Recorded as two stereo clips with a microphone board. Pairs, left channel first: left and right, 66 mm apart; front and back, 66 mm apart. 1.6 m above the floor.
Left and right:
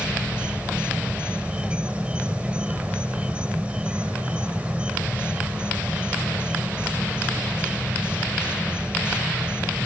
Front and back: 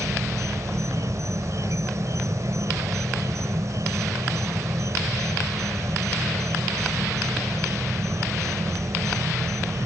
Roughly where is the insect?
Behind.